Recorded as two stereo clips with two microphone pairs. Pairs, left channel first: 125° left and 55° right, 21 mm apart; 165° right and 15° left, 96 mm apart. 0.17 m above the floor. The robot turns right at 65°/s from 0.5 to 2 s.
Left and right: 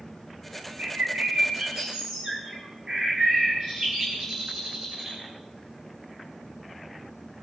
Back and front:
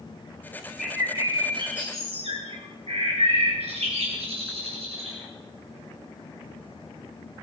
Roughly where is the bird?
Right.